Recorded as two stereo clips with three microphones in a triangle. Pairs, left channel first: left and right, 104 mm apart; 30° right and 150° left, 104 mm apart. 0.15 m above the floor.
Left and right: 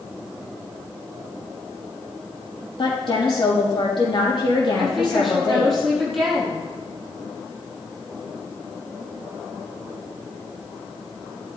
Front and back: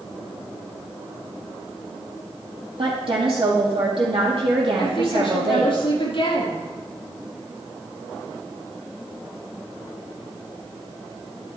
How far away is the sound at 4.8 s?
About 5 m.